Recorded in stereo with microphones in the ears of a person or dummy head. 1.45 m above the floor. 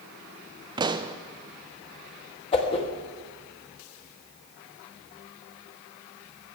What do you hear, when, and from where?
0.8 s a pop: 20° right (ahead or behind), 0.5 m
2.5 s a whoosh: 30° left (ahead or behind), 1.6 m